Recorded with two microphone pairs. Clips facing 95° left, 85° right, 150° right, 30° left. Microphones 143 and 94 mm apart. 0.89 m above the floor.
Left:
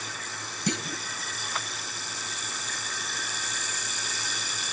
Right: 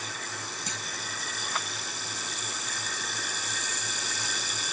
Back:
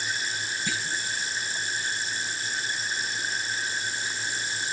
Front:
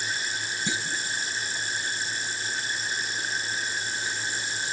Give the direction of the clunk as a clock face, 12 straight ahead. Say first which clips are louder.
Left 8 dB, front 1 dB; 9 o'clock.